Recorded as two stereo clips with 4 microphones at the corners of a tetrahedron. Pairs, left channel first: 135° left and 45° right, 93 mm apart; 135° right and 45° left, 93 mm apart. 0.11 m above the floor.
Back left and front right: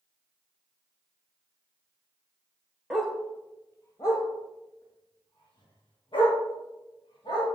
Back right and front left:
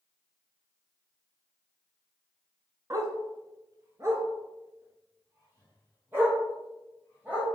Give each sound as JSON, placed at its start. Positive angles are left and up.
{"t": 2.9, "sound": "a dog barking", "azimuth_deg": 40, "distance_m": 0.6}